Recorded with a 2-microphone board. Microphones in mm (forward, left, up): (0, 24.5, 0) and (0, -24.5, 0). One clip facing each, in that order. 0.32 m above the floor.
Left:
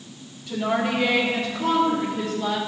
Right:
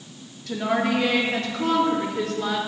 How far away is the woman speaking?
About 4 m.